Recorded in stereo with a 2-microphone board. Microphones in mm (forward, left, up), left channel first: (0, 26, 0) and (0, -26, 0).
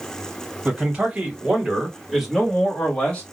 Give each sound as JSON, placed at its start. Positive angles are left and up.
{"t": 0.7, "sound": "a man speaking", "side_deg": -30, "distance_m": 1.5}